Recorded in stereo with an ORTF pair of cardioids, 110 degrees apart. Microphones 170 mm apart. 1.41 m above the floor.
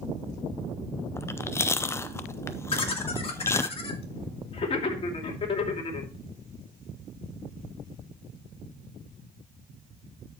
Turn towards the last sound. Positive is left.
turn(degrees=35)